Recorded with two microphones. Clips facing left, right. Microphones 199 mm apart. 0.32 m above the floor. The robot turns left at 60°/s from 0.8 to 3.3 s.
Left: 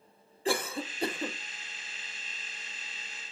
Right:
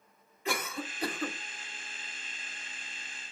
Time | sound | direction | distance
0.5 | a cough | 30° left (ahead or behind) | 1.0 m